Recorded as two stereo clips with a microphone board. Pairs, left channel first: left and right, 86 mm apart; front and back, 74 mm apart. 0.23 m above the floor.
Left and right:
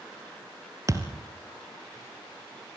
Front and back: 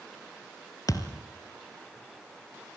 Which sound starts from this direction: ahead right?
A thud, at 0.9 s.